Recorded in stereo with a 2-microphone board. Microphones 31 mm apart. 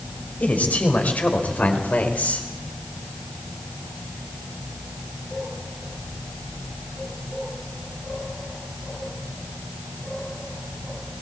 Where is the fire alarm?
No fire alarm in this recording.